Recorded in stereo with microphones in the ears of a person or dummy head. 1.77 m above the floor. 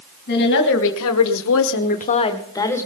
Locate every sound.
0.3 s a woman speaking: 50° left (ahead or behind), 2.5 m; by 2.9 s 20° left (ahead or behind), 2.5 m